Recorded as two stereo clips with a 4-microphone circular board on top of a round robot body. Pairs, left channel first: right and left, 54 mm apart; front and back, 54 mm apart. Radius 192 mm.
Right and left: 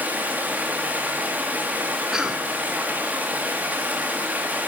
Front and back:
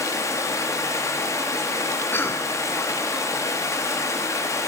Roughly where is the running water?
Ahead left.